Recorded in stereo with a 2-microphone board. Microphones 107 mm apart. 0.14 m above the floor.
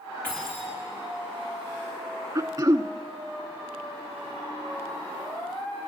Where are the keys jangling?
15° left (ahead or behind), 6.5 m.